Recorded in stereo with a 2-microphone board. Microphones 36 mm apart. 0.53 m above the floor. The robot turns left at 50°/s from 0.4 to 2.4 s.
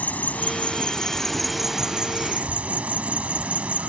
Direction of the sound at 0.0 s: 55° left.